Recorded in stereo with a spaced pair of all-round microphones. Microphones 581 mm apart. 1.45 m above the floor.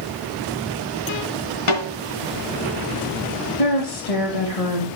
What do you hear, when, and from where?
1.7 s a snare drum: 60° left (ahead or behind), 3 m
3.6 s a woman speaking: 80° left, 1.9 m